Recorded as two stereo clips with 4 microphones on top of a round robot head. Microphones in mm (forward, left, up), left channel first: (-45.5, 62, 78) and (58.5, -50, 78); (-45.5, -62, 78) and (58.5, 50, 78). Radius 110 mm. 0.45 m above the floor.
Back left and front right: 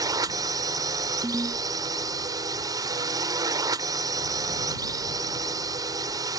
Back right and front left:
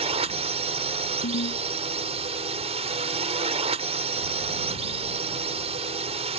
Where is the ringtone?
125° right.